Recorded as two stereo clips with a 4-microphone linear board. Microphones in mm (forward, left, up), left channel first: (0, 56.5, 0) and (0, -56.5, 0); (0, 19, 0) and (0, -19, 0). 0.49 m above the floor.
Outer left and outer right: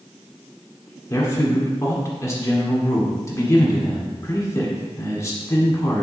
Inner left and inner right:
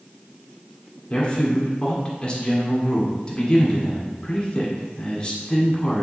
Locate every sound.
1.1 s a man speaking: 25° left (ahead or behind), 1.5 m